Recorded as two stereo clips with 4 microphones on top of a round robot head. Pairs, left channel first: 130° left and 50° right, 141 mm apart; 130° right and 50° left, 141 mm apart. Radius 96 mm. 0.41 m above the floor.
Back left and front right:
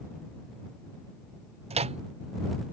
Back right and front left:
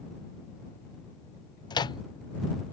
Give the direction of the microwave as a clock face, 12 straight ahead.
3 o'clock.